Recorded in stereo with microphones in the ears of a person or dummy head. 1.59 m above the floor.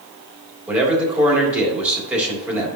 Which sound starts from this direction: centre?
A man speaking, at 0.7 s.